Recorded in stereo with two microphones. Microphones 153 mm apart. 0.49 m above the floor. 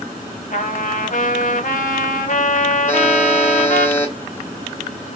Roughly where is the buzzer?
Centre.